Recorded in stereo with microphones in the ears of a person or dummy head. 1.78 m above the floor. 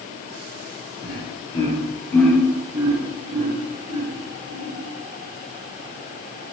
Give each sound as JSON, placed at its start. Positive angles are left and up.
{"t": 1.0, "sound": "laughter", "side_deg": 30, "distance_m": 1.2}